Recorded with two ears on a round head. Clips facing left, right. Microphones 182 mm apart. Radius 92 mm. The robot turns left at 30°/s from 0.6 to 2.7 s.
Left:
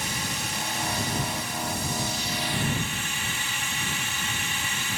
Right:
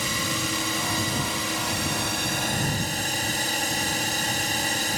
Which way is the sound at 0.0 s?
75° right.